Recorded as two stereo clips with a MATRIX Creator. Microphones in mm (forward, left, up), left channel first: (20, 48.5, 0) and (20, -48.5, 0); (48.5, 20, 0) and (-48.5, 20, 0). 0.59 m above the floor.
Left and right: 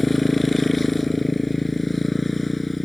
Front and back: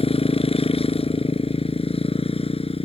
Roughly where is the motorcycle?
Ahead.